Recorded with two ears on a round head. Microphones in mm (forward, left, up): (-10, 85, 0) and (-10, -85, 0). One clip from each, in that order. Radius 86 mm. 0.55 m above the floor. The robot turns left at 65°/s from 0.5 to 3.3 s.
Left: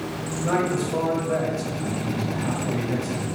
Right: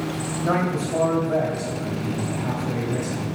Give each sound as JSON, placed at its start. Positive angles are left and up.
{"t": 0.4, "sound": "a man speaking", "azimuth_deg": 175, "distance_m": 2.5}